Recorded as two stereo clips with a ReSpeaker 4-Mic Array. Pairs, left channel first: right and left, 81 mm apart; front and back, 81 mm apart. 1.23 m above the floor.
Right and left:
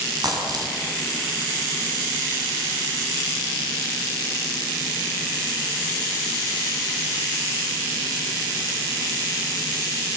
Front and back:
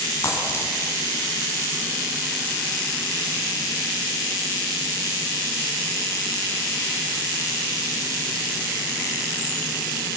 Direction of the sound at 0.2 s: 55° left.